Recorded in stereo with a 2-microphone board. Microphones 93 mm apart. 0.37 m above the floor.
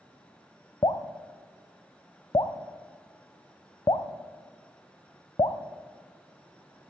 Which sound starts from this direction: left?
Dripping, at 0.8 s.